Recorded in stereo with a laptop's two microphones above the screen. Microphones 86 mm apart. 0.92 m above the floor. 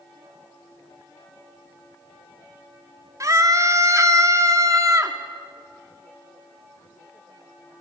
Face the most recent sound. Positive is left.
turn(degrees=-40)  # may be behind; listen again after turning